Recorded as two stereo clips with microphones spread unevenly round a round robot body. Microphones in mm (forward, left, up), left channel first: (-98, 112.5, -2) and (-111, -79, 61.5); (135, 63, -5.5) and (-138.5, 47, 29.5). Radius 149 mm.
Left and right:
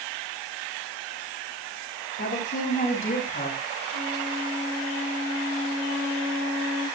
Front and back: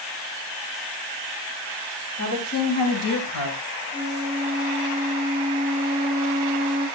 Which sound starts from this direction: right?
A flute, at 3.9 s.